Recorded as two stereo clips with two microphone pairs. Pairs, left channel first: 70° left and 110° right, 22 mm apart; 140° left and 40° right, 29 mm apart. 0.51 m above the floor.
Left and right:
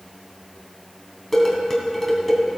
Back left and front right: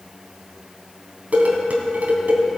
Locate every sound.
1.3 s dishes clattering: 10° right, 2.5 m